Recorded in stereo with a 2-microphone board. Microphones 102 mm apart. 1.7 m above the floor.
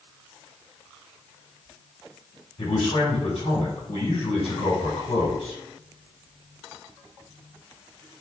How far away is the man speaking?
About 5.5 m.